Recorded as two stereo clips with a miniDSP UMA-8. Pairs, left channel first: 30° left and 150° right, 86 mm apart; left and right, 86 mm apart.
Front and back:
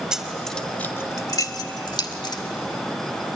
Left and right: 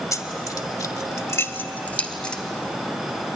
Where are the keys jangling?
130° left, 1.2 m; by 2.4 s 10° left, 1.7 m.